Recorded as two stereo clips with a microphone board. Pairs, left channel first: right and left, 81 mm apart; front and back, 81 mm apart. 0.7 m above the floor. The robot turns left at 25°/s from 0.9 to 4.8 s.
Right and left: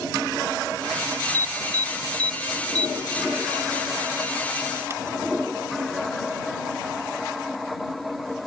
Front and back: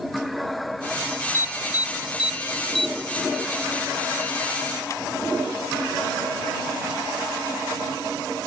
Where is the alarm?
125° left; by 5.1 s 40° left.